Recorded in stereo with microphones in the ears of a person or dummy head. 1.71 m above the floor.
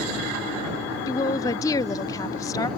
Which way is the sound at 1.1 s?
15° left (ahead or behind).